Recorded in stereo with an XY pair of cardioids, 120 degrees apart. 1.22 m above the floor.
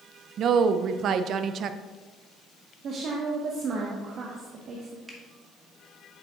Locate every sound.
0.4 s a woman speaking: 55° right, 0.6 m
2.8 s a woman speaking: 55° right, 1.3 m
5.1 s a finger snap: 10° right, 2 m